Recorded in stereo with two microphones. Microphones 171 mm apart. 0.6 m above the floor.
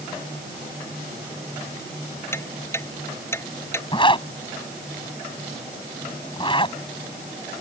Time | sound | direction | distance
2.3 | ticking | 15° left (ahead or behind) | ?
3.9 | a zipper | 30° left (ahead or behind) | ?